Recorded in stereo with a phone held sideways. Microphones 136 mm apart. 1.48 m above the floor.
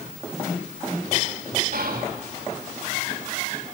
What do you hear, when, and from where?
1.7 s whispering: 85° right, 3 m